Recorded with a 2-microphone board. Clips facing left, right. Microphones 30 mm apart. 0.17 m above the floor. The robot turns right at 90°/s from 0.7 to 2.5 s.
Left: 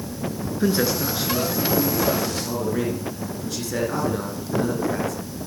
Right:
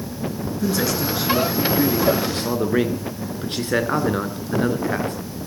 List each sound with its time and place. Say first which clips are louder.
0.6 s a man speaking: left 1 dB; 140° left, 3 m; by 5.2 s 60° right, 3 m